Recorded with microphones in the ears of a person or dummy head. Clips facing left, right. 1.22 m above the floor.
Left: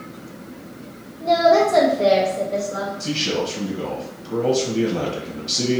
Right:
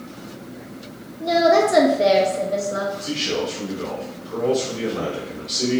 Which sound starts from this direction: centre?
A woman speaking, at 1.2 s.